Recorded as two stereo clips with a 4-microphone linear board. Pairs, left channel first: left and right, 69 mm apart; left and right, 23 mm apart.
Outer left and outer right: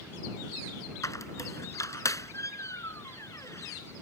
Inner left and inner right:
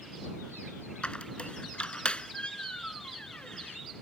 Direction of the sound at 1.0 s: 45° left (ahead or behind).